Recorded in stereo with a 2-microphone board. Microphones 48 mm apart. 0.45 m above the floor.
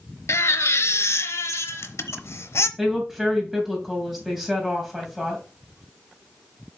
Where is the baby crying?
80° left, 0.7 m.